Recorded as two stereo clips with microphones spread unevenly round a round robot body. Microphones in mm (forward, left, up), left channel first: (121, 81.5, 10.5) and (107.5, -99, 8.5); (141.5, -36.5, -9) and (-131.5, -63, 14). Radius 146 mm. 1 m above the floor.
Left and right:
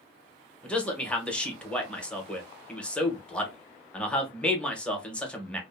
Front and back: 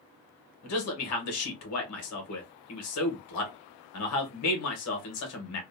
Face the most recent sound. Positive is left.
turn(degrees=0)